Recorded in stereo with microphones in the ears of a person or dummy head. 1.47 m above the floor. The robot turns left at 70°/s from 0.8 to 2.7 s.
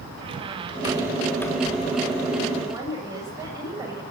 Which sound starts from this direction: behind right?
A squeak, at 0.2 s.